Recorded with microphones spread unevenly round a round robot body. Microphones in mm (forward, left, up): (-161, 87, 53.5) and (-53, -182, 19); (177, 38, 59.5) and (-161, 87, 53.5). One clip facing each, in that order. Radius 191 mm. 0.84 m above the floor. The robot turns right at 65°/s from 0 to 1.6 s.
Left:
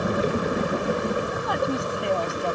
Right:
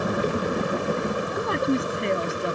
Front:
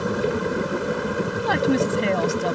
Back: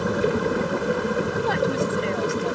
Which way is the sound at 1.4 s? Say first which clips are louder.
Right 3 dB, front 6 dB; 10° right.